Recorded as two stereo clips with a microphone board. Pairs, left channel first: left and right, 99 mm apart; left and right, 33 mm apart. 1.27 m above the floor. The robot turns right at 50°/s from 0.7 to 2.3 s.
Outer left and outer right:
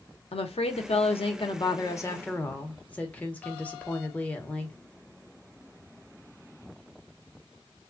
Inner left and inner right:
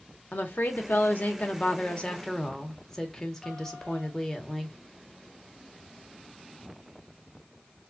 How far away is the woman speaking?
About 1.0 m.